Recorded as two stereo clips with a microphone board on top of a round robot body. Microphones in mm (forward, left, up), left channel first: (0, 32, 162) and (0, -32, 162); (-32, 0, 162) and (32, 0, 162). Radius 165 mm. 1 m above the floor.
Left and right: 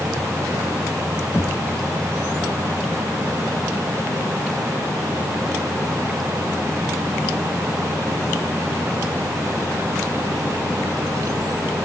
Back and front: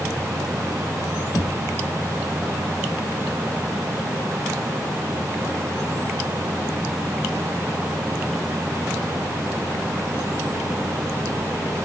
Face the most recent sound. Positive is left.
turn(degrees=145)